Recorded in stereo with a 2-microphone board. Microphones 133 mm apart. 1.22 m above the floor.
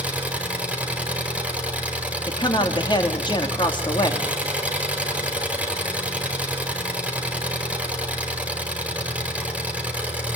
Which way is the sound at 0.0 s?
10° right (ahead or behind).